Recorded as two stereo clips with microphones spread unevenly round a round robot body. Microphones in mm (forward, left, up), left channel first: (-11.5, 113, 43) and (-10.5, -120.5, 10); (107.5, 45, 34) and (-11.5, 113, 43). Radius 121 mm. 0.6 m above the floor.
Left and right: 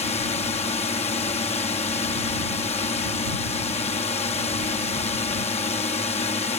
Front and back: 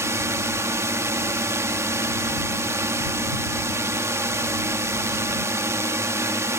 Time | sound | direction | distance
0.0 | a drone | 120° left | ?